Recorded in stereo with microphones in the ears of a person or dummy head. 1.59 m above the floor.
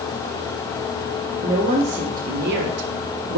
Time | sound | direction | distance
1.4 | a woman speaking | 30° right (ahead or behind) | 1.8 m